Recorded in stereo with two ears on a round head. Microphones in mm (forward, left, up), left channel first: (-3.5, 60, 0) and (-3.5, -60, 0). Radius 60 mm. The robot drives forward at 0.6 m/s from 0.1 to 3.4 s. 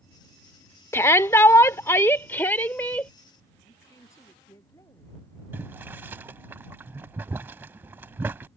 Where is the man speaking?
25° left (ahead or behind).